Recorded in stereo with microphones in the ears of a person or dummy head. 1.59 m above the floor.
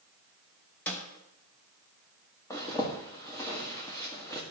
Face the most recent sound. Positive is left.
turn(degrees=10)  # may be behind; listen again after turning